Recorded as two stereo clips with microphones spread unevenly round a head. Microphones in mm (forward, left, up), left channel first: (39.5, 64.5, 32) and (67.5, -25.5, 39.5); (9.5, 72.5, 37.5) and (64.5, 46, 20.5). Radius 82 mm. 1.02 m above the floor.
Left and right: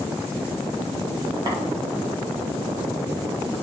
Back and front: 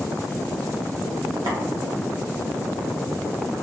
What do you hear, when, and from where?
1.5 s tapping: 40° right, 0.6 m